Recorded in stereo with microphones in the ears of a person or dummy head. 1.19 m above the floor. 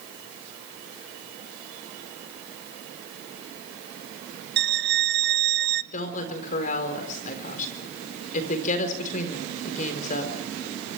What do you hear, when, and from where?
4.6 s a violin: 50° right (ahead or behind), 0.5 m
5.9 s a woman speaking: 45° left (ahead or behind), 4 m